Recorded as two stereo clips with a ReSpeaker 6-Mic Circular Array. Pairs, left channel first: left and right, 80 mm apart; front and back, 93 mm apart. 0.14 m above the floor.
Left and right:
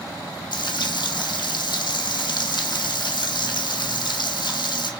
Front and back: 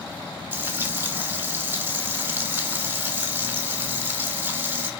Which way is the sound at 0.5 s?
115° left.